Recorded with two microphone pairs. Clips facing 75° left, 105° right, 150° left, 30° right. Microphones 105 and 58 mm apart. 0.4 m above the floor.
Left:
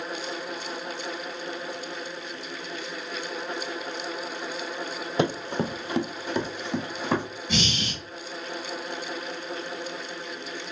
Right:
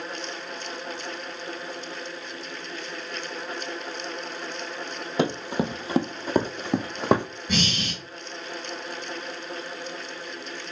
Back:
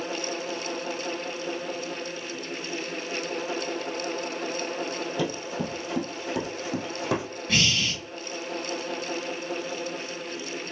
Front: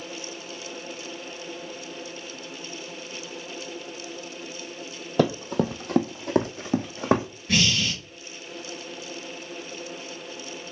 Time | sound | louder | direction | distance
5.2 | running footsteps | right 1 dB, front 10 dB | 15° right | 0.8 m
7.5 | breathing | right 1 dB, front 1 dB | 120° right | 2 m